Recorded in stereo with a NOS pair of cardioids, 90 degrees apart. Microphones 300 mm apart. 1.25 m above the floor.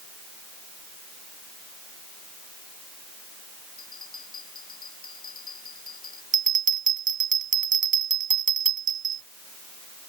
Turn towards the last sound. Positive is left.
turn(degrees=-30)